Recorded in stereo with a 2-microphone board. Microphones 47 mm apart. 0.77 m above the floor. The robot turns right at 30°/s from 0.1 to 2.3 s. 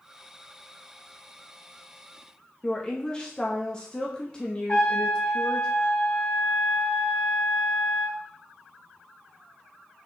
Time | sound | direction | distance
2.6 | a woman speaking | 20° left (ahead or behind) | 0.7 m
4.7 | a trumpet | 35° left (ahead or behind) | 2.5 m